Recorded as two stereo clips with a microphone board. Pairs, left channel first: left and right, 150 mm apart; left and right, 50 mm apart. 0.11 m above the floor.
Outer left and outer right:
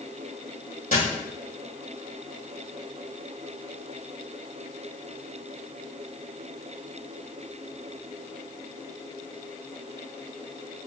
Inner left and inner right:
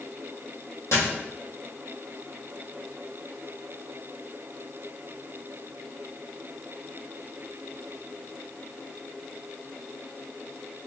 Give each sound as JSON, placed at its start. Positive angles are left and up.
{"t": 0.9, "sound": "a dropped coin", "side_deg": 65, "distance_m": 1.6}